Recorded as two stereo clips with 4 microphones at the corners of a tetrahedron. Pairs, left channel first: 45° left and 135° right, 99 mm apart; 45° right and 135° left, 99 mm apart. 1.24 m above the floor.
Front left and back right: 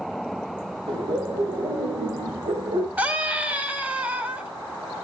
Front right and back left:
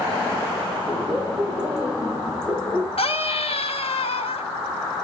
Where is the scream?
60° right, 4.5 m.